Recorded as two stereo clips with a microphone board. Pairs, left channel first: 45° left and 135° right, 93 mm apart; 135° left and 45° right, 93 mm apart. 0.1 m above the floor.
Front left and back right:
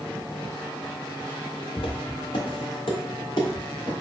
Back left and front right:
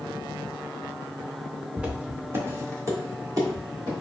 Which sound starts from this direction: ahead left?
Footsteps, at 1.8 s.